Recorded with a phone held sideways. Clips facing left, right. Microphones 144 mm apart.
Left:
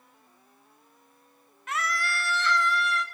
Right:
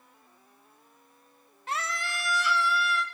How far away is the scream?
About 0.7 m.